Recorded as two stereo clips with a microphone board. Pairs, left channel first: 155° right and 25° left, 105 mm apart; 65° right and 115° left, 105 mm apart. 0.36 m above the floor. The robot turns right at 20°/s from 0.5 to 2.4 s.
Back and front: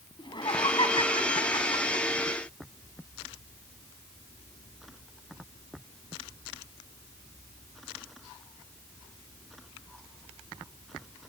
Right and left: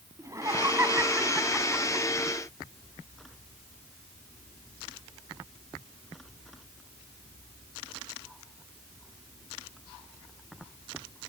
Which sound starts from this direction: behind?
Laughter, at 0.2 s.